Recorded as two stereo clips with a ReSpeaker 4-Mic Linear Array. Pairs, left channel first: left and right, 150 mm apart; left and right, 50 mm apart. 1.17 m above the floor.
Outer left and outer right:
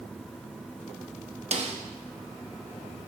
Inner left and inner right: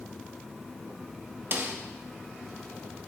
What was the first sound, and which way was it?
A snare drum, 45° right (ahead or behind).